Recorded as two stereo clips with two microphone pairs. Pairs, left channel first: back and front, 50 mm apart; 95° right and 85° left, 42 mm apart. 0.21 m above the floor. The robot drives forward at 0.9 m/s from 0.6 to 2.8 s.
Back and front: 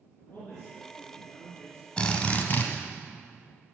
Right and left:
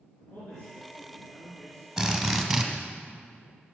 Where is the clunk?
No clunk in this recording.